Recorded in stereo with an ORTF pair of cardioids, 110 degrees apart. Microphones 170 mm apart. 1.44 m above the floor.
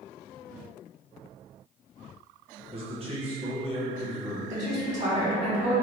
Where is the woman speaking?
45° right, 1.7 m.